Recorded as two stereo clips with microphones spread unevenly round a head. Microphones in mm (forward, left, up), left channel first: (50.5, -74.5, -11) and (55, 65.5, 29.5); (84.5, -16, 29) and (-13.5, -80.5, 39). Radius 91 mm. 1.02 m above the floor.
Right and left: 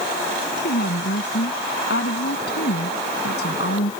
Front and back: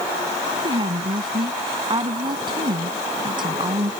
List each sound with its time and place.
0.6 s a woman speaking: 95° right